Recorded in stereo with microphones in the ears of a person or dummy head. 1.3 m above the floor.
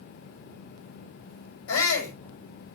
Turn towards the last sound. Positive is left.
turn(degrees=85)